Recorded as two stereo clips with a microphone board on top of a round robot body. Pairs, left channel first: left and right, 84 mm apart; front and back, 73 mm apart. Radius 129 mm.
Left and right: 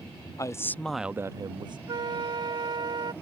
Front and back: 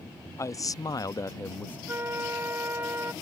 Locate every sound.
0.4 s a man speaking: 40° left; by 1.8 s 70° right
1.9 s a flute: 120° right